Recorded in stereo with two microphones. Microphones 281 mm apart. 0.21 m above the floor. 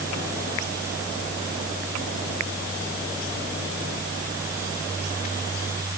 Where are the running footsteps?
No running footsteps in this recording.